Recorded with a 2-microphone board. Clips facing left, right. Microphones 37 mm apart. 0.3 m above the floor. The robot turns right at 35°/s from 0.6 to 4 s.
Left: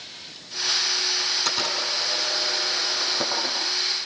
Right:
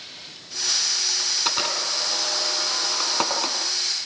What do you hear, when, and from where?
1.2 s a camera shutter: 20° right (ahead or behind), 8 m; by 3.6 s 75° right (ahead or behind), 8 m